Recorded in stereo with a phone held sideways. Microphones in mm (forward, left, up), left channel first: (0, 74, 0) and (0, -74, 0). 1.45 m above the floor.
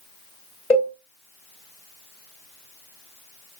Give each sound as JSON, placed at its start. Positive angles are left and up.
{"t": 0.7, "sound": "a cowbell", "side_deg": 40, "distance_m": 1.4}